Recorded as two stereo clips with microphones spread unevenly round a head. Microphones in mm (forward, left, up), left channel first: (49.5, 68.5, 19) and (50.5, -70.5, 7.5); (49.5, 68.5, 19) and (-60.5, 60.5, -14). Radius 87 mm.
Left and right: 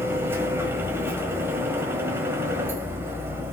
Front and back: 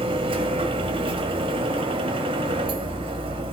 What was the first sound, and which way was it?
A machine running, 160° right.